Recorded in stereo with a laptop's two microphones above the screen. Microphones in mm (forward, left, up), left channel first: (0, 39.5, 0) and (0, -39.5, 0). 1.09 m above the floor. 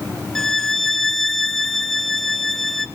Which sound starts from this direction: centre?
A violin, at 0.3 s.